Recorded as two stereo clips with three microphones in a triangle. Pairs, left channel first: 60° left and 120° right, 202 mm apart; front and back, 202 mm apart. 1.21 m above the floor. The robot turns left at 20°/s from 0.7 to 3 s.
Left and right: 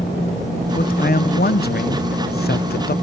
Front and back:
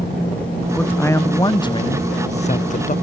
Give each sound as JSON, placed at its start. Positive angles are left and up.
{"t": 0.7, "sound": "a man speaking", "azimuth_deg": 80, "distance_m": 0.6}